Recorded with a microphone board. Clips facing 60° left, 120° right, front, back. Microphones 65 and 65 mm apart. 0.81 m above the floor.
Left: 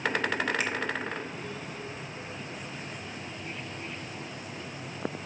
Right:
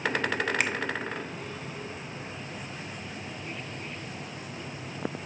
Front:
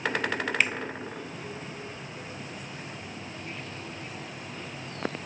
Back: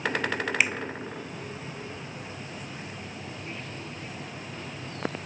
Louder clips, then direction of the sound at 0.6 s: Right 3 dB, back 1 dB; 100° right.